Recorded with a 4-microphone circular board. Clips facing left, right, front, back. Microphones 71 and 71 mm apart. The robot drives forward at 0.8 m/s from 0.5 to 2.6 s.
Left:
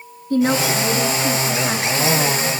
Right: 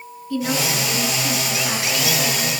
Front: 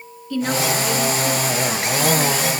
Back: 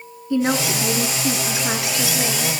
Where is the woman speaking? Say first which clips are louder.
Left 5 dB, back 1 dB; 115° left, 1.4 m; by 2.5 s 155° left, 2.5 m.